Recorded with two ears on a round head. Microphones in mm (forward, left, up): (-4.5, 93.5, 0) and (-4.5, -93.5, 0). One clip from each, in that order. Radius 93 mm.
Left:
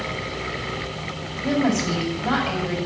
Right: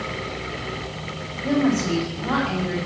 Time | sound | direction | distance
1.4 | a woman speaking | 65° left (ahead or behind) | 6 m